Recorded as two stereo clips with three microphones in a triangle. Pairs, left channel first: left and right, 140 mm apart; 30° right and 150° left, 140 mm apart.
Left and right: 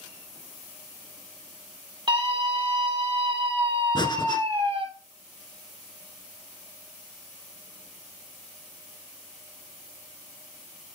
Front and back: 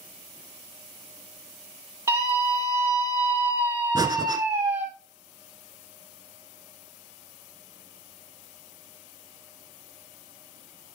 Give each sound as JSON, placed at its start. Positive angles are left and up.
{"t": 2.1, "sound": "a scream", "azimuth_deg": -140, "distance_m": 3.5}
{"t": 4.0, "sound": "breathing", "azimuth_deg": 115, "distance_m": 0.9}